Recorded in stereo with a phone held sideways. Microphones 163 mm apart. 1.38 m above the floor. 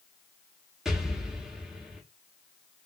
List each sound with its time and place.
0.8 s an explosion: centre (ahead or behind), 0.9 m